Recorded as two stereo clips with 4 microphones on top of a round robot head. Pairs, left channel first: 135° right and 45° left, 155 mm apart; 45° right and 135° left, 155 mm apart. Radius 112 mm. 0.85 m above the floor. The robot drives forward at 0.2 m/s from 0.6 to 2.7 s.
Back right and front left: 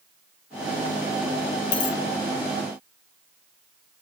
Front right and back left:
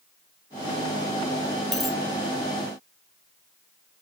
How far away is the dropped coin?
About 0.9 m.